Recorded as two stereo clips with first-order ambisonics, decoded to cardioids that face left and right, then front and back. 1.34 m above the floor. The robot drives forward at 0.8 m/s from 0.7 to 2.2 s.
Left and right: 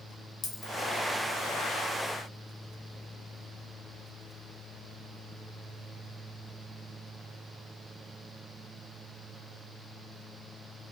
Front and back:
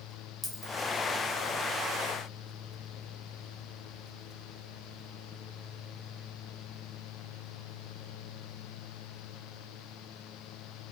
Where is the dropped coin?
95° left, 0.8 m.